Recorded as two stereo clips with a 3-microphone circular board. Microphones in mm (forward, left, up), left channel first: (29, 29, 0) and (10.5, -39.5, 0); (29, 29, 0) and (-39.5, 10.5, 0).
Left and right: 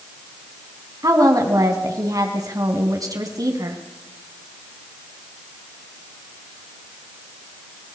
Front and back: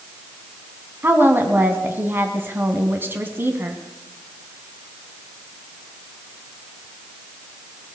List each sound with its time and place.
1.0 s a woman speaking: 110° right, 2.5 m